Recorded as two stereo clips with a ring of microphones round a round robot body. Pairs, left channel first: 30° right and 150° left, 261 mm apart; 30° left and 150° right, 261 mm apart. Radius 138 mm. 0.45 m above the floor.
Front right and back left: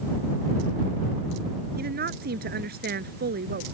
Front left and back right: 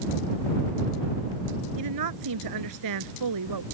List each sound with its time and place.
1.8 s a woman speaking: 155° right